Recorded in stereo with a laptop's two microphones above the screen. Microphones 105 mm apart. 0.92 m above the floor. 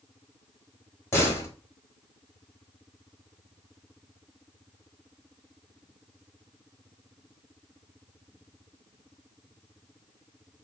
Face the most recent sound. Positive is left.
turn(degrees=25)  # may be behind; listen again after turning